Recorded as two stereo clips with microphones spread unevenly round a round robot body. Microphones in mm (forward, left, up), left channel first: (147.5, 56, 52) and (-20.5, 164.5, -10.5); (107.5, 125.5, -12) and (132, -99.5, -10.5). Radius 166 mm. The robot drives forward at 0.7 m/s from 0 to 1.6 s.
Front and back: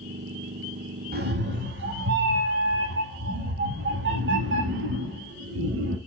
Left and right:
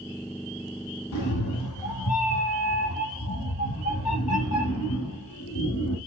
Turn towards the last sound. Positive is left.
turn(degrees=130)